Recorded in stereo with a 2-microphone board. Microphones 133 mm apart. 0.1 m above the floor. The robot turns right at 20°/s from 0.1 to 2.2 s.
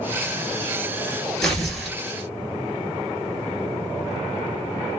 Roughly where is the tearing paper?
Centre.